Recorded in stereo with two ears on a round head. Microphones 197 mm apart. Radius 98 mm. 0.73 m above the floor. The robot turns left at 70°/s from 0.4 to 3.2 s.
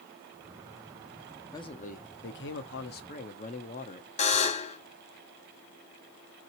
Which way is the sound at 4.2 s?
30° left (ahead or behind).